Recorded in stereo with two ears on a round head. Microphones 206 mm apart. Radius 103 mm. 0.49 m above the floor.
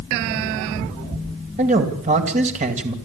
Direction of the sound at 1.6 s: 35° right (ahead or behind).